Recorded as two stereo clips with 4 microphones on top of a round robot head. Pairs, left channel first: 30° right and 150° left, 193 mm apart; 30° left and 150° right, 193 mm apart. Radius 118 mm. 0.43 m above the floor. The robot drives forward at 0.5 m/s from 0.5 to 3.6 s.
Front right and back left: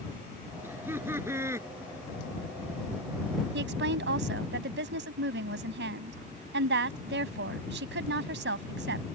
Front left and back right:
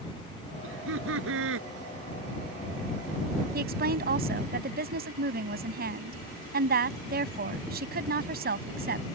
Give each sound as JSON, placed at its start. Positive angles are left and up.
{"t": 0.6, "sound": "laughter", "azimuth_deg": -130}
{"t": 3.5, "sound": "a woman speaking", "azimuth_deg": 175}